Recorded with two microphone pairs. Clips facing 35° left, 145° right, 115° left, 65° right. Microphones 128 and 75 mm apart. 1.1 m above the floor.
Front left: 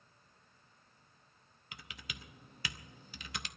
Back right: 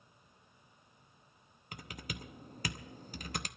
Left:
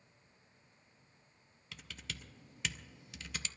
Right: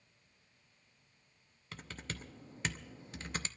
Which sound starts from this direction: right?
Typing on a keyboard, at 1.7 s.